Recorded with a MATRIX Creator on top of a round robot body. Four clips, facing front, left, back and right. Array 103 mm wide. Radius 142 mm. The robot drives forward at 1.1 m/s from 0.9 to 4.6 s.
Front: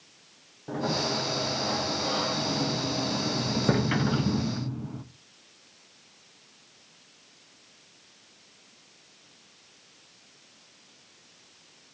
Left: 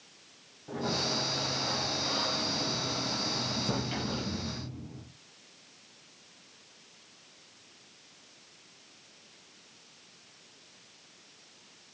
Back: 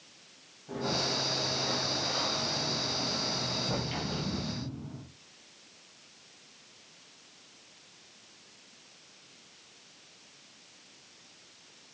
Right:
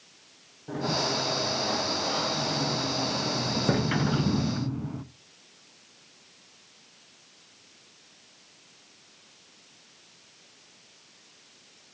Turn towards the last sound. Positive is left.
turn(degrees=-70)